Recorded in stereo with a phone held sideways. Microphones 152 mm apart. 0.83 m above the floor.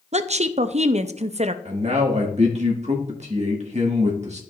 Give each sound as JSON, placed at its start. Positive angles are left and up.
{"t": 0.1, "sound": "a woman speaking", "side_deg": -45, "distance_m": 0.5}
{"t": 1.6, "sound": "a man speaking", "side_deg": -45, "distance_m": 1.6}